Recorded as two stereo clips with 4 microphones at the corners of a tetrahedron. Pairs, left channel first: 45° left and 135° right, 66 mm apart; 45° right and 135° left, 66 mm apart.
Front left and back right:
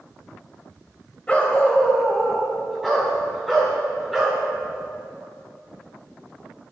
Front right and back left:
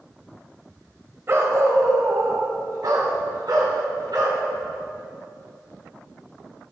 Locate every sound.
1.3 s a dog barking: 105° left, 1.3 m; by 4.4 s 140° left, 3.5 m